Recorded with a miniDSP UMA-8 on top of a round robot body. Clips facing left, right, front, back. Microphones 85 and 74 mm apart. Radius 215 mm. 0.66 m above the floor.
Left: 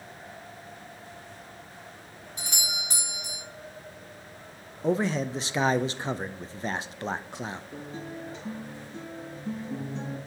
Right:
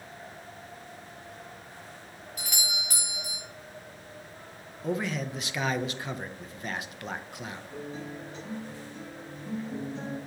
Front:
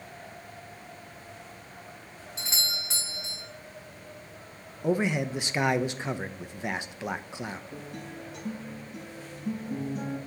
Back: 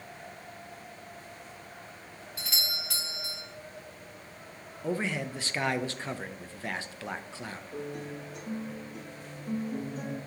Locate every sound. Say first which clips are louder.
2.4 s a doorbell: even, front 2 dB; 45° left, 1.4 m
4.8 s a man speaking: left 5 dB, front 5 dB; 60° left, 0.6 m
7.7 s a guitar: even, back 3 dB; 25° left, 3 m